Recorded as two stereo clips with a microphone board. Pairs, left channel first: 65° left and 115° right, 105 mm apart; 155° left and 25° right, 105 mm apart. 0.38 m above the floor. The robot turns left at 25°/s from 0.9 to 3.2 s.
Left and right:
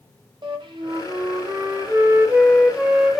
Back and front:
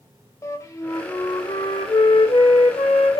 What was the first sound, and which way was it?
A flute, 145° right.